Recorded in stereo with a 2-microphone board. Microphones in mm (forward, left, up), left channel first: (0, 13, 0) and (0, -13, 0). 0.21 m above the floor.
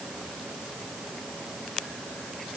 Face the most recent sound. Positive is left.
No sound to turn to.